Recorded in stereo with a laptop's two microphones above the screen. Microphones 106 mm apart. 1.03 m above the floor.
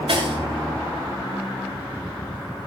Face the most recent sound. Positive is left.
turn(degrees=-60)  # may be behind; listen again after turning